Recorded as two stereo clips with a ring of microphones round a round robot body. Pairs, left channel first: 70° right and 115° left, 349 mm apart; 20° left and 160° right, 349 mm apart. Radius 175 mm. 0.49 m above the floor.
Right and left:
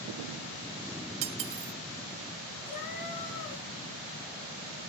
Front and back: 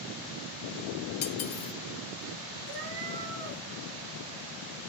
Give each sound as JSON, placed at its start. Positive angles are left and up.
{"t": 1.2, "sound": "cutlery clinking", "azimuth_deg": 75, "distance_m": 0.7}
{"t": 2.7, "sound": "a cat meowing", "azimuth_deg": -100, "distance_m": 3.5}